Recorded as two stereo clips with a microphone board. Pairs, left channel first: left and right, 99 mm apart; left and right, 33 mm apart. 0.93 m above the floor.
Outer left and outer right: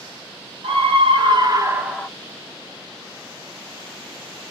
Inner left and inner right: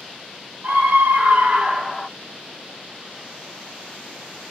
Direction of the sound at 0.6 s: 70° right (ahead or behind).